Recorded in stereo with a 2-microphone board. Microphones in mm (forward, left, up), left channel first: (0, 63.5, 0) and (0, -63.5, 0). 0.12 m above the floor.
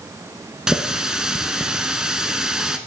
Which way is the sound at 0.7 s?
5° right (ahead or behind).